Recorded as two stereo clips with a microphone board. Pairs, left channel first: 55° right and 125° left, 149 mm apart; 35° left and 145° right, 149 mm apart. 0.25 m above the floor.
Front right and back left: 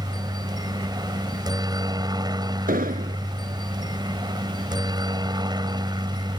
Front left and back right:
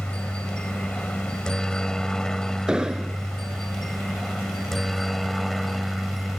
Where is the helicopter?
110° left; by 6.4 s 125° left.